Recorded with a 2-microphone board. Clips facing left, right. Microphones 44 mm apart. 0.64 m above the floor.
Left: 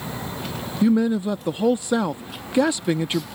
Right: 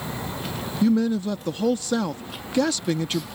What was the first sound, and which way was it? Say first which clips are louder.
A man speaking: left 2 dB; 20° left (ahead or behind).